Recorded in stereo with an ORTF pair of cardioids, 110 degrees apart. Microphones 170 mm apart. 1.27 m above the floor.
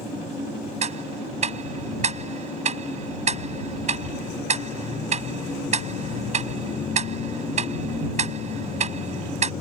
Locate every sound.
0.8 s ticking: 40° right